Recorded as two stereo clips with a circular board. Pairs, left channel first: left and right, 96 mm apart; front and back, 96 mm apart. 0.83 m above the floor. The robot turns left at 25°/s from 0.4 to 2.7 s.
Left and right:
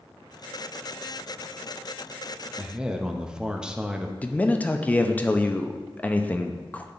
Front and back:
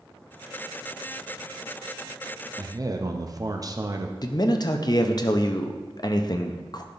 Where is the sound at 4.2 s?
20° left, 0.5 m.